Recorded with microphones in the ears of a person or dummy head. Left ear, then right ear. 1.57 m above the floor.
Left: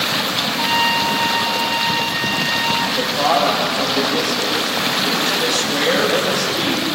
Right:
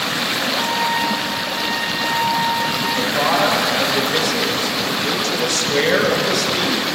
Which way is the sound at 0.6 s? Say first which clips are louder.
Left 5 dB; 70° left (ahead or behind).